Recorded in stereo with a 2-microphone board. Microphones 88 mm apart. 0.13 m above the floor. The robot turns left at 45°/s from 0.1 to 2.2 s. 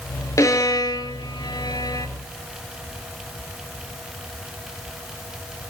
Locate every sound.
0.4 s a violin: 35° left (ahead or behind), 0.7 m; by 2.1 s 45° left (ahead or behind), 0.7 m